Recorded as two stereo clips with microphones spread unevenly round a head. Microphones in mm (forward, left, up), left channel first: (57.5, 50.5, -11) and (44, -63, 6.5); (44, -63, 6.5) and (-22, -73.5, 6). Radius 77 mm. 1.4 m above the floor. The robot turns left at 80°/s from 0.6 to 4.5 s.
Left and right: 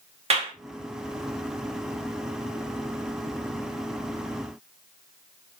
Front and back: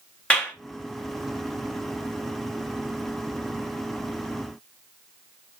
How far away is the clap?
About 1.8 m.